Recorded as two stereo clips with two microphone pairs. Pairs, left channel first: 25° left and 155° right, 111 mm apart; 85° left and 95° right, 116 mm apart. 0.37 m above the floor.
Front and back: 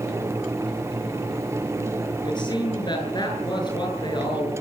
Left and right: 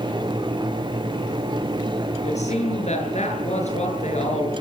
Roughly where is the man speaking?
Left.